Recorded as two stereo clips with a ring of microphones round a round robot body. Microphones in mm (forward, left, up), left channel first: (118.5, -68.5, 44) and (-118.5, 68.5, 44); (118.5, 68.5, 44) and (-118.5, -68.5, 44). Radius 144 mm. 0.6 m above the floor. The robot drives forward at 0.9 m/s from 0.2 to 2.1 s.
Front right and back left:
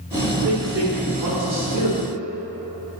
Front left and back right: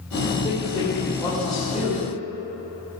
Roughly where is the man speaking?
Left.